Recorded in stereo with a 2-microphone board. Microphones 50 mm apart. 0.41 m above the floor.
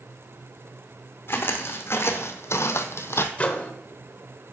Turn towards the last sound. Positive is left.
turn(degrees=25)  # may be behind; listen again after turning